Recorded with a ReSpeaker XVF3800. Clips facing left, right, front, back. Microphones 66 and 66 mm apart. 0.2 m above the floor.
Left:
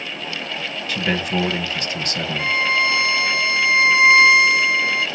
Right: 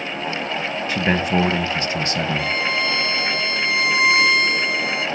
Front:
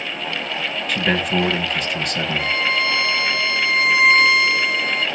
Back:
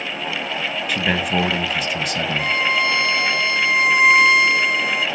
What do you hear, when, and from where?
0.9 s a man speaking: 100° right, 1.5 m
2.4 s a violin: 110° left, 0.9 m